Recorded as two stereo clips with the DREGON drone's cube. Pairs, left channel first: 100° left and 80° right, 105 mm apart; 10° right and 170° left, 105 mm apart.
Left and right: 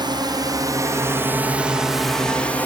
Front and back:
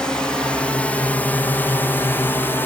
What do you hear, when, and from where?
0.0 s a drone: 90° right; by 2.7 s 40° left